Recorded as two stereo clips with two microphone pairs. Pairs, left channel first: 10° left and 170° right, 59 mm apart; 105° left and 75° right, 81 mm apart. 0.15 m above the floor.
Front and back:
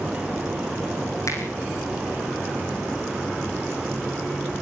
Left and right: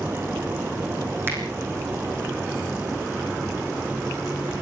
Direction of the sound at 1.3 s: 15° right.